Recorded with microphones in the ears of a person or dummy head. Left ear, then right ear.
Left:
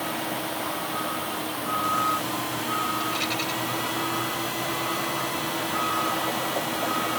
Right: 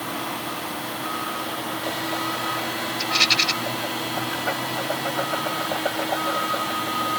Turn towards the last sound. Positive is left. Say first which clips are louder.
# right 8 dB
turn(degrees=-65)  # may be behind; listen again after turning